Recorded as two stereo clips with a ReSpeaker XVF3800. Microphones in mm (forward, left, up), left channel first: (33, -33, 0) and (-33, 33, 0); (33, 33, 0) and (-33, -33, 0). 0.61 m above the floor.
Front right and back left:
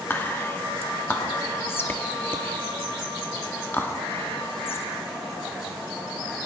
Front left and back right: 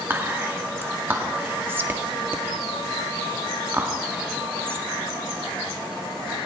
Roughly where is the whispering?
Right.